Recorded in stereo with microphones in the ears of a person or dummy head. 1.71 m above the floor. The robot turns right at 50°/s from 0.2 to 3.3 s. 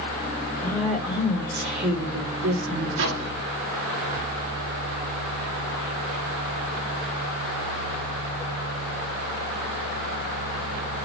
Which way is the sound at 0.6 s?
165° left.